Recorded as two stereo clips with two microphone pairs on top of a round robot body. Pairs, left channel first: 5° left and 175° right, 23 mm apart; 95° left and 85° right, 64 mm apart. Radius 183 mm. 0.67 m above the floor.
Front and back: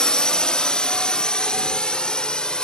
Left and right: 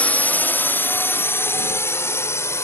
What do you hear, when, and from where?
0.0 s a drone: 35° left; by 2.6 s 50° left